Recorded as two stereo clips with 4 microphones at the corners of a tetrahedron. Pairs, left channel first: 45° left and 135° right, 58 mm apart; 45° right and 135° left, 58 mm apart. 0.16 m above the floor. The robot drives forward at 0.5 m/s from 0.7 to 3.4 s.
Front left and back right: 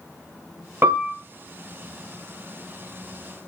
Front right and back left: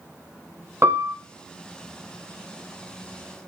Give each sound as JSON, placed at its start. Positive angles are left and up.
{"t": 0.8, "sound": "a piano", "azimuth_deg": 175, "distance_m": 0.7}